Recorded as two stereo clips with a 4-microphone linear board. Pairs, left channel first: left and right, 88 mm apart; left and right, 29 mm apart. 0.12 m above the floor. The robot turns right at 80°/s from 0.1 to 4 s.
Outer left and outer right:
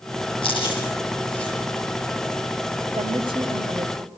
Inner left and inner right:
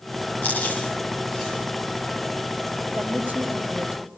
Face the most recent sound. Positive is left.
turn(degrees=-40)